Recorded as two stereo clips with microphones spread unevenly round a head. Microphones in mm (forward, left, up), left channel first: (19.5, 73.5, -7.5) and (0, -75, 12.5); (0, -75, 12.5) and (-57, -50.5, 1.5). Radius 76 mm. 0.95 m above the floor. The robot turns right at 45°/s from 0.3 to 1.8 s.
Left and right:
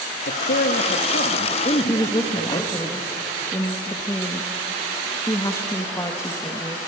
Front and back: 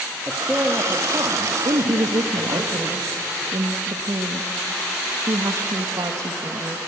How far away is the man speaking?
About 1.3 m.